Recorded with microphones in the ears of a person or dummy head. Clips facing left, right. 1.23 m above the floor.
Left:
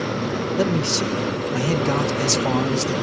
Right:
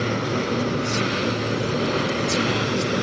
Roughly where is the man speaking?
Left.